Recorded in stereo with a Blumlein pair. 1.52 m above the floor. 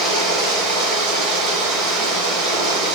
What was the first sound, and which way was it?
Running water, 15° right.